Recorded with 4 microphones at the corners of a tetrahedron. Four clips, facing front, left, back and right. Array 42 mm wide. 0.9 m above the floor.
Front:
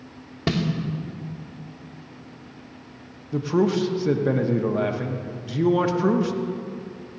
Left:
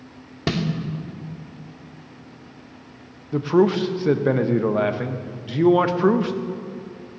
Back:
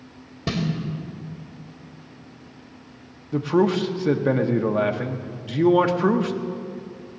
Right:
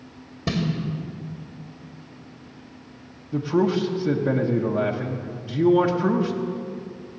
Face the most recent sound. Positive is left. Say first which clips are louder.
# left 4 dB, back 2 dB
turn(degrees=115)